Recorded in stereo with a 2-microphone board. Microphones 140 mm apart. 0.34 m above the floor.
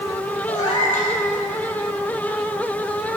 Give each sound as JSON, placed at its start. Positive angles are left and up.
{"t": 0.5, "sound": "a cat meowing", "side_deg": 60, "distance_m": 4.5}